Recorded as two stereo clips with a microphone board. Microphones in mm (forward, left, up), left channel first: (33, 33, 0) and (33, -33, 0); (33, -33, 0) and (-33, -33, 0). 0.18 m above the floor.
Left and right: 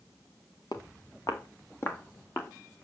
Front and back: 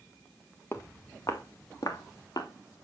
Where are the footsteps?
60° left, 1.8 m; by 2.5 s 30° left, 2.5 m.